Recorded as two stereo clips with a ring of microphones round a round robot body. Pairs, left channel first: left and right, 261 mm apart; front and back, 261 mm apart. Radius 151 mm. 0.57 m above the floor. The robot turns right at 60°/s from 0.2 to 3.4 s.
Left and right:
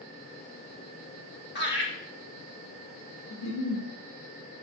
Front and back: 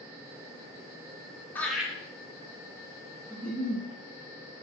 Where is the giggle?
85° left, 1.0 m; by 3.8 s 90° left, 1.0 m.